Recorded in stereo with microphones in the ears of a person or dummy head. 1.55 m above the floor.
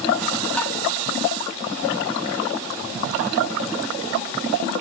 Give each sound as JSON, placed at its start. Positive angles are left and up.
{"t": 0.6, "sound": "tapping", "side_deg": 10, "distance_m": 2.0}